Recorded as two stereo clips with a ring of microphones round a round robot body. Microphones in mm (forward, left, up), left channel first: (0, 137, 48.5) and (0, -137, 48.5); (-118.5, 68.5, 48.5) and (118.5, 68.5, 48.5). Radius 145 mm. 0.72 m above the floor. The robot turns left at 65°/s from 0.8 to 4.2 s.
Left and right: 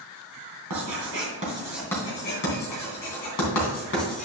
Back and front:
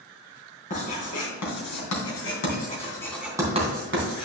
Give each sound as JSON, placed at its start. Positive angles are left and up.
{"t": 0.7, "sound": "writing", "azimuth_deg": -115, "distance_m": 2.5}